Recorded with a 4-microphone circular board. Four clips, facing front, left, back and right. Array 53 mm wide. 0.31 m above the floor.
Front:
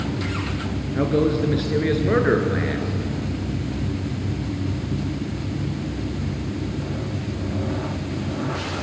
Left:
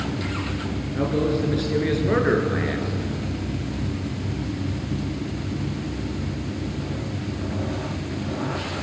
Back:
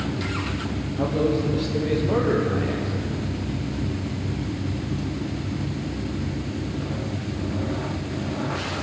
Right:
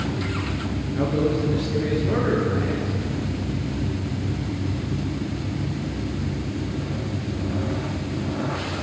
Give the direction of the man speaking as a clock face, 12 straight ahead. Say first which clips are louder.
Even, front 3 dB; 12 o'clock.